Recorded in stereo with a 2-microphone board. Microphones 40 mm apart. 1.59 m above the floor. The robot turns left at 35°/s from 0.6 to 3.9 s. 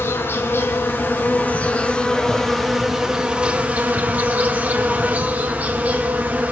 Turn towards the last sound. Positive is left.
turn(degrees=-45)